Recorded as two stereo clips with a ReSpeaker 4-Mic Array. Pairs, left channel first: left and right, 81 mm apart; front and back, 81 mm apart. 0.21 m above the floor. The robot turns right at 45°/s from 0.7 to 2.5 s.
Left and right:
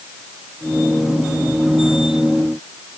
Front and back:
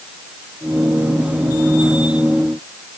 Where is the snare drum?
I don't hear a snare drum.